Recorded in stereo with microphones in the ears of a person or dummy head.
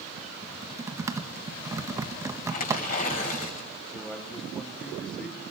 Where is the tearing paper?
45° left (ahead or behind), 6.5 m.